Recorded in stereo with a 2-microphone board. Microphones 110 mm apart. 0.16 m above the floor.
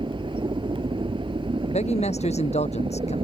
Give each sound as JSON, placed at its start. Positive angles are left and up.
{"t": 0.0, "sound": "a helicopter", "side_deg": -45}
{"t": 1.7, "sound": "a man speaking", "side_deg": 70}